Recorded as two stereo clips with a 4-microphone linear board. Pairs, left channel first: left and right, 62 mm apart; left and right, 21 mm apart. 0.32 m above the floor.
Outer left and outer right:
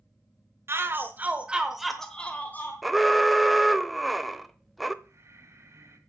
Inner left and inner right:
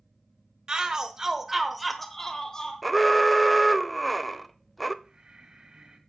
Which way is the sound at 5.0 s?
45° right (ahead or behind).